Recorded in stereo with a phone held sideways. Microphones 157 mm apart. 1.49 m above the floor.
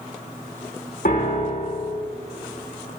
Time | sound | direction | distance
1.1 | a piano | 60° left (ahead or behind) | 1.9 m